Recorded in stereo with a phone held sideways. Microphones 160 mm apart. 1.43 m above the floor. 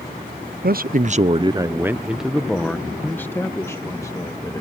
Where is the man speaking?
70° right (ahead or behind); by 4.6 s 20° left (ahead or behind).